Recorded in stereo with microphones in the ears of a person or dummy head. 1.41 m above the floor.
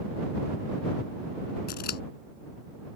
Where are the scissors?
55° left (ahead or behind).